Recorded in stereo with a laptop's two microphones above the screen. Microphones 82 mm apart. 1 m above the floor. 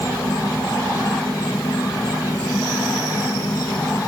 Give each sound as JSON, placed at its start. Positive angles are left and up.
{"t": 0.0, "sound": "an insect", "side_deg": 50}